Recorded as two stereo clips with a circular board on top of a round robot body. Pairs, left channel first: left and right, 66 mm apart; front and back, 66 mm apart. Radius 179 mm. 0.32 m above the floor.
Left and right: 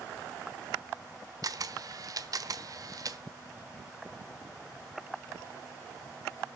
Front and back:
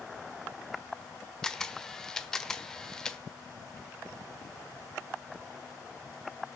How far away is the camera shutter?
About 1.4 m.